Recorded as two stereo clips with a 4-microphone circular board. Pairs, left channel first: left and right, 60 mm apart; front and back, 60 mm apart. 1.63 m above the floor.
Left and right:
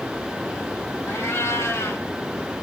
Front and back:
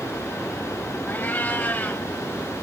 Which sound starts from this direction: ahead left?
A cat meowing, at 1.1 s.